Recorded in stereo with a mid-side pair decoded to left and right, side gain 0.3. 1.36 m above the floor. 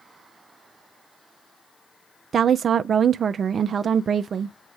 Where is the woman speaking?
65° right, 0.5 m.